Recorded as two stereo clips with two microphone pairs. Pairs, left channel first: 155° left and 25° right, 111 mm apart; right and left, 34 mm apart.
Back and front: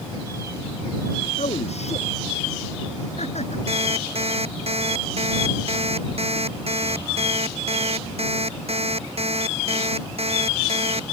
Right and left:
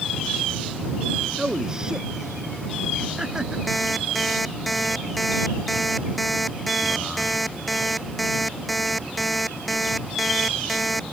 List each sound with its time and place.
1.4 s a man speaking: 165° left
3.7 s an alarm clock: straight ahead